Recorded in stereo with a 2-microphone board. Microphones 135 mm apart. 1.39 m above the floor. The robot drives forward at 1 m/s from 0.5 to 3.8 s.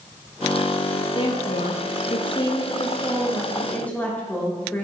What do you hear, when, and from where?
1.1 s a woman speaking: 35° left (ahead or behind), 0.7 m; by 4.8 s 10° left (ahead or behind), 2 m